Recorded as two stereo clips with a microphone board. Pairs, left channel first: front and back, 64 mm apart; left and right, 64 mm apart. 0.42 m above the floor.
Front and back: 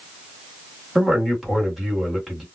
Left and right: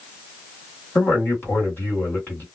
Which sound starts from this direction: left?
A man speaking, at 0.9 s.